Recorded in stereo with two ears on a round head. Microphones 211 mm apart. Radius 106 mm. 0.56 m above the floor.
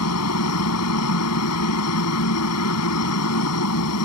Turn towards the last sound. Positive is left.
turn(degrees=75)  # may be behind; listen again after turning